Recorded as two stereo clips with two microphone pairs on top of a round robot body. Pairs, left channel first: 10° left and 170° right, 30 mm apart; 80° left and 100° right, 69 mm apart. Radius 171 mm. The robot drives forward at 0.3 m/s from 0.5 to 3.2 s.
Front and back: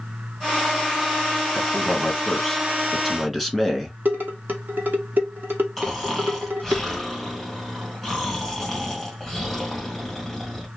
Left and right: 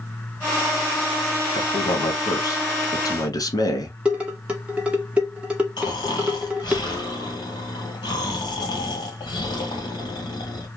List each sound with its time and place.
1.5 s a man speaking: 85° left, 1.5 m; by 4.0 s 105° left, 1.6 m
4.0 s dishes clattering: 175° right, 0.7 m
5.8 s snoring: 95° left, 1.5 m